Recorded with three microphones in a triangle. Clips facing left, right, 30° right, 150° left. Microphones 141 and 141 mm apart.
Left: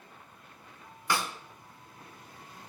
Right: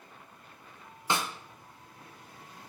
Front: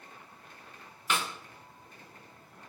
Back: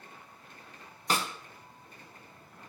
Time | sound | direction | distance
1.1 | a snare drum | 155° right | 0.9 m